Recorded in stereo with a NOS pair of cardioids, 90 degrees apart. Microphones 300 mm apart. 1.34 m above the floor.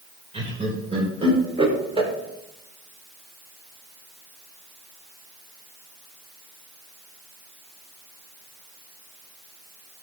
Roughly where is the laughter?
Ahead.